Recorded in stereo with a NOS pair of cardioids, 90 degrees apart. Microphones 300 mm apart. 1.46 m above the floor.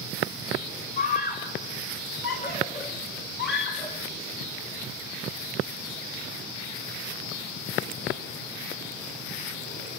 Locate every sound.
1.0 s a scream: 30° left, 3 m; by 4.0 s 35° left, 4.5 m